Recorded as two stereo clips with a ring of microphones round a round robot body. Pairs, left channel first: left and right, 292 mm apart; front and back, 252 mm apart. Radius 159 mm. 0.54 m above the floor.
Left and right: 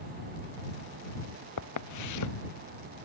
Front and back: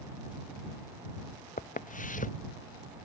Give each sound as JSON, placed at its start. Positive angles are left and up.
{"t": 1.6, "sound": "footsteps", "azimuth_deg": 60}